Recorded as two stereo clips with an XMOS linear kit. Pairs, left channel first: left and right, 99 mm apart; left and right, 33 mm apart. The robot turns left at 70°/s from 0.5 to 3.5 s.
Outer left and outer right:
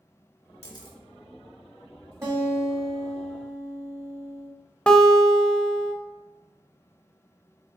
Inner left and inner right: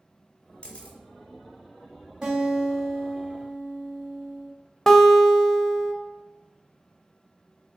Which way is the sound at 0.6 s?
30° left (ahead or behind).